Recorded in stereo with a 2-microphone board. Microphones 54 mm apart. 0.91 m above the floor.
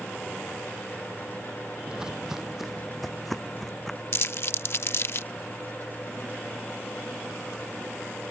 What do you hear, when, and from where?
1.9 s footsteps: 15° right (ahead or behind); by 4.0 s 5° left (ahead or behind)
4.1 s crumpling: 50° left (ahead or behind)